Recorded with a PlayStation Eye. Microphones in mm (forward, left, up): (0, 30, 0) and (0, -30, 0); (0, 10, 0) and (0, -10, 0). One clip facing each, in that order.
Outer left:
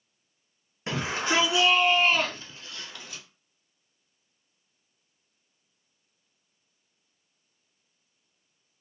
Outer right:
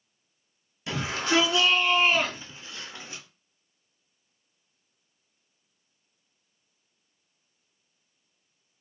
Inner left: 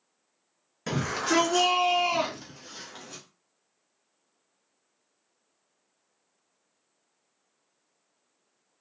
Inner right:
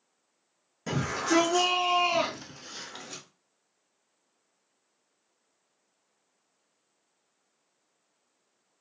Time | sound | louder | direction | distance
0.9 | a shout | even, even | 35° left (ahead or behind) | 1.3 m